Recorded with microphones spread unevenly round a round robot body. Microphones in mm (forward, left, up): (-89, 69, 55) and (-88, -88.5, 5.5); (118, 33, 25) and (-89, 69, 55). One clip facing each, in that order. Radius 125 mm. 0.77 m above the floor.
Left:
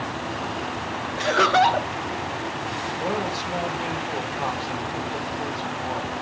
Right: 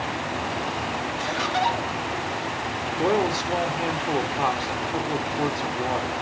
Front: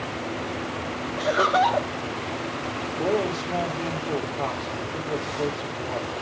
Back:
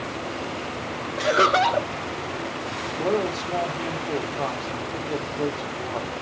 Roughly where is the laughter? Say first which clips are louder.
Left 8 dB, back 2 dB; left.